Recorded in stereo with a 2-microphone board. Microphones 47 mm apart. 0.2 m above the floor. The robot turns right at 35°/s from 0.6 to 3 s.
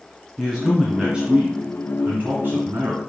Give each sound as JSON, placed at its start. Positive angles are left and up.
{"t": 0.4, "sound": "a man speaking", "azimuth_deg": -175, "distance_m": 2.0}